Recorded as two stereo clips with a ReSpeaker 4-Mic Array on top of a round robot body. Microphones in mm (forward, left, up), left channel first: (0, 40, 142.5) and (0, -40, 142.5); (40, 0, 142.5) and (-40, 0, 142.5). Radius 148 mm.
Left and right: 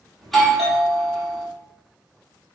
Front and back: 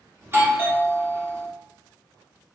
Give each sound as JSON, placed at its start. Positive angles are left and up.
{"t": 0.2, "sound": "a doorbell", "azimuth_deg": 175, "distance_m": 1.3}